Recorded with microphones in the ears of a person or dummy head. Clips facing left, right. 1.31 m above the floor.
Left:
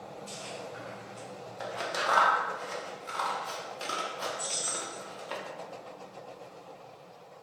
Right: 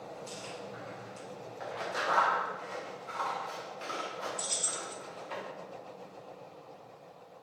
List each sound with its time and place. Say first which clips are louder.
0.3 s chewing: left 1 dB; 60° right (ahead or behind), 1.0 m
1.6 s scissors: left 2 dB; 65° left (ahead or behind), 0.7 m
4.4 s keys jangling: left 2 dB; 60° right (ahead or behind), 0.6 m